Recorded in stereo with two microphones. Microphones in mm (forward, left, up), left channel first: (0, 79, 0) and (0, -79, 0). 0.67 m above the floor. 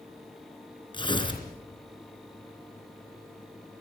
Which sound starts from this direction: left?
Tearing paper, at 0.9 s.